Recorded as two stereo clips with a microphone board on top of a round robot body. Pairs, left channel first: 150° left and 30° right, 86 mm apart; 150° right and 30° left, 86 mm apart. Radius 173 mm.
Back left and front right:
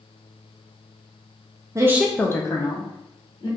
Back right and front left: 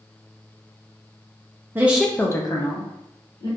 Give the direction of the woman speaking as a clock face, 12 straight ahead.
1 o'clock.